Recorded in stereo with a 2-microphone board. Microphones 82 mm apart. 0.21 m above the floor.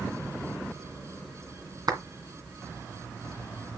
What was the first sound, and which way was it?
A clap, 55° right (ahead or behind).